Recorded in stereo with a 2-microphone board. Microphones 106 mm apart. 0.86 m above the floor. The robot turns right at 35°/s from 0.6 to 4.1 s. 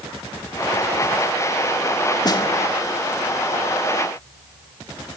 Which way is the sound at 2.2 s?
40° left (ahead or behind).